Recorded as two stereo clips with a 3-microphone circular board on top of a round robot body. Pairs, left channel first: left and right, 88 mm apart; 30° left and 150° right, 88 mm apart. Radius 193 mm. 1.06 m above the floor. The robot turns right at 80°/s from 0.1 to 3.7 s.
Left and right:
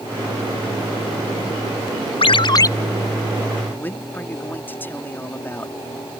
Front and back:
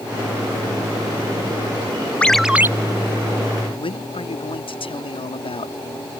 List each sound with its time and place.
2.2 s a ringtone: 105° left; by 2.7 s 145° left
3.8 s a man speaking: 20° left